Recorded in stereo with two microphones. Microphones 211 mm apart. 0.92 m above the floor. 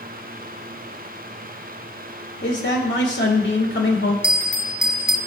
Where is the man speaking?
70° left (ahead or behind), 2 m.